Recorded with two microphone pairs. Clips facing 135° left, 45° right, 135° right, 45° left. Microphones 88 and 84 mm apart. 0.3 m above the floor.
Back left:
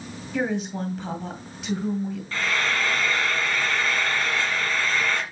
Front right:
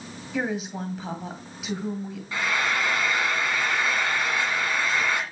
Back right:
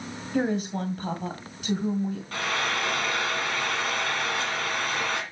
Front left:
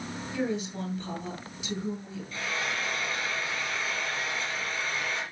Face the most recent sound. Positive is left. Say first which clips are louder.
# front right 1 dB, back right 2 dB
turn(degrees=-120)